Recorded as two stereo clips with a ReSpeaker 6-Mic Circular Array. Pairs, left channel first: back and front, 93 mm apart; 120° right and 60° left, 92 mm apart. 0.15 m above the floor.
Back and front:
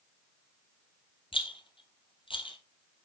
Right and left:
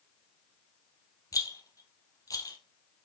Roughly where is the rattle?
Behind.